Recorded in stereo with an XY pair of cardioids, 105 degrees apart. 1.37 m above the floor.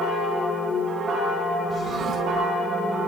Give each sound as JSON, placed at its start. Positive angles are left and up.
{"t": 1.7, "sound": "a drawer", "azimuth_deg": -40, "distance_m": 8.0}